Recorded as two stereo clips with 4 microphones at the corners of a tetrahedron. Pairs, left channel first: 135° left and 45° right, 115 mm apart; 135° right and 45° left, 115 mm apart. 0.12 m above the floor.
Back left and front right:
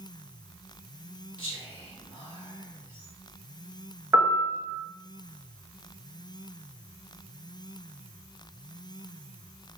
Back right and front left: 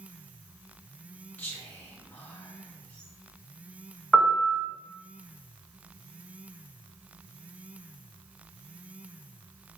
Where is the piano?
60° right, 0.6 m.